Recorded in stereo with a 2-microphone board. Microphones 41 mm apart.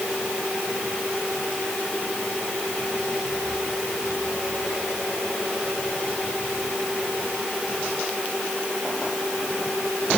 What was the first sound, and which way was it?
Only background noise.